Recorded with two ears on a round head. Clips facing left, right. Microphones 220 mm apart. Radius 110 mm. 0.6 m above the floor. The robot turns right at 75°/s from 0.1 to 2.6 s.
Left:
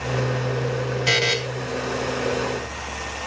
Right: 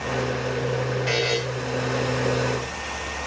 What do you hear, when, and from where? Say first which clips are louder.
1.1 s a buzzer: right 1 dB; 60° left (ahead or behind), 3.5 m; by 1.4 s 40° left (ahead or behind), 3.5 m